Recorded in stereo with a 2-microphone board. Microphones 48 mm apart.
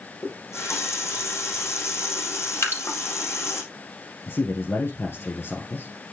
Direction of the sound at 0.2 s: 80° left.